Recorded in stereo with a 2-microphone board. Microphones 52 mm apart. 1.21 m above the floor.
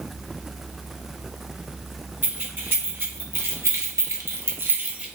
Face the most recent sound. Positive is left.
turn(degrees=-20)  # may be behind; listen again after turning